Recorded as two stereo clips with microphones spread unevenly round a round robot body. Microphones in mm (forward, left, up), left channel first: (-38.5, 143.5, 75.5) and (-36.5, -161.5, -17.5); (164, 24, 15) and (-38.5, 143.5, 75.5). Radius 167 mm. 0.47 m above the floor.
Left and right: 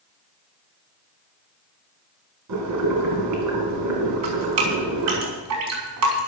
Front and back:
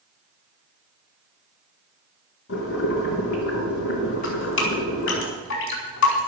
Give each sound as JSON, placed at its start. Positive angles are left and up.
{"t": 2.5, "sound": "boiling", "azimuth_deg": -70, "distance_m": 3.5}
{"t": 4.2, "sound": "dripping", "azimuth_deg": -55, "distance_m": 4.0}